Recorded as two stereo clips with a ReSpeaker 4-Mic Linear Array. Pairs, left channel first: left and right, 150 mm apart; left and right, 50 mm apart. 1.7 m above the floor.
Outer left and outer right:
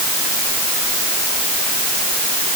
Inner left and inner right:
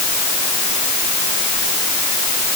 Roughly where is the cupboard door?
No cupboard door in this recording.